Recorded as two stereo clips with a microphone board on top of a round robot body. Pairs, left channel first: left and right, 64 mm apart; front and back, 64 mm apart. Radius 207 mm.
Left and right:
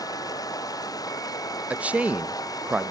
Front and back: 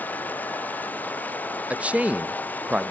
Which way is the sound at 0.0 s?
65° left.